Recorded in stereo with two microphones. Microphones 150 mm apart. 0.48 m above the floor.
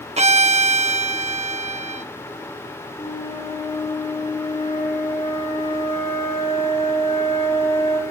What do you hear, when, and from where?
0.2 s a violin: 45° right (ahead or behind), 0.6 m
3.0 s a flute: 40° left (ahead or behind), 6.5 m